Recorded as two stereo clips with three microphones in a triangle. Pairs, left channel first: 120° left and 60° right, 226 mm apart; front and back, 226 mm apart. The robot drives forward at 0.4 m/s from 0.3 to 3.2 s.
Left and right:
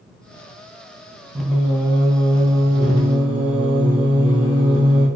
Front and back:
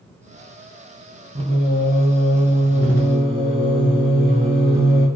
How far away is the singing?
About 0.5 m.